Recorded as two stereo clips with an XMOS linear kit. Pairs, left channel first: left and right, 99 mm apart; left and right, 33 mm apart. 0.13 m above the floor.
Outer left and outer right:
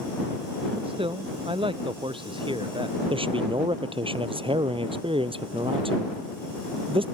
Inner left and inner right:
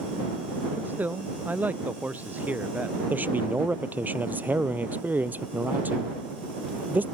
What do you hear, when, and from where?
0.8 s a man speaking: 65° right (ahead or behind); by 3.0 s 55° right (ahead or behind)
3.1 s a man speaking: 65° right (ahead or behind)